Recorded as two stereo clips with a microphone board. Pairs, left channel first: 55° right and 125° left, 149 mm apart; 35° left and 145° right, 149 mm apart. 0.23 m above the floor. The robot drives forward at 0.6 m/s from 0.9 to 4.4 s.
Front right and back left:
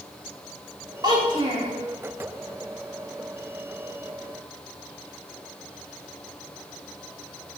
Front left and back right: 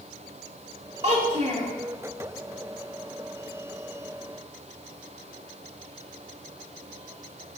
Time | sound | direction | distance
1.0 | a child speaking | straight behind | 1.0 m